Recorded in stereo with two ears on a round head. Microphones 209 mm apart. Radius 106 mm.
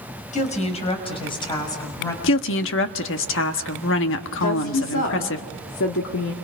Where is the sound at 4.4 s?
60° left (ahead or behind), 2 m.